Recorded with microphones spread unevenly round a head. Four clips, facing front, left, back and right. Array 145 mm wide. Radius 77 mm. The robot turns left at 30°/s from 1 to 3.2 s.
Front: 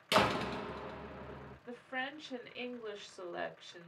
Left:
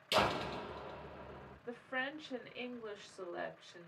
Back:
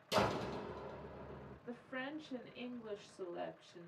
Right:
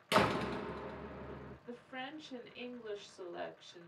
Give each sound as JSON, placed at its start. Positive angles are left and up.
{"t": 0.1, "sound": "a door slam", "azimuth_deg": -50, "distance_m": 0.7}
{"t": 1.7, "sound": "a woman speaking", "azimuth_deg": 65, "distance_m": 1.4}